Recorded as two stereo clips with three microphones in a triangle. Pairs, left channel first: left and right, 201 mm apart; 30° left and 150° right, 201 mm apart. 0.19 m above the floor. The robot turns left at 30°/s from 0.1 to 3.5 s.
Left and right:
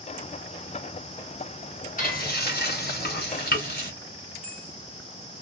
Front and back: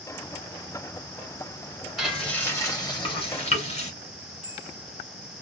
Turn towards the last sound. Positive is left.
turn(degrees=-55)